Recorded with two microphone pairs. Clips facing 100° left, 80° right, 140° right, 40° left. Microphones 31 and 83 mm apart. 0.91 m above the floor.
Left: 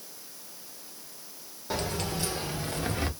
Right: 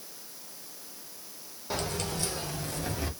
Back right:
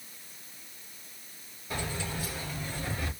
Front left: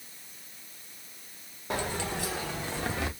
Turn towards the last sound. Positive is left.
turn(degrees=55)